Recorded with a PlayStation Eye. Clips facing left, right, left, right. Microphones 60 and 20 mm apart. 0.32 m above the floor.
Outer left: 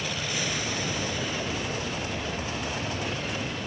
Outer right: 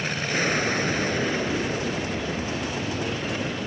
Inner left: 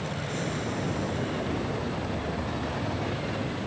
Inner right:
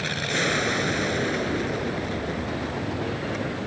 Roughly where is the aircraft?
Right.